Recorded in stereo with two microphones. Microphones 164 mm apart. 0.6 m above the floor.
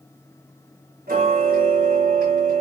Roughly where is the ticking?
Right.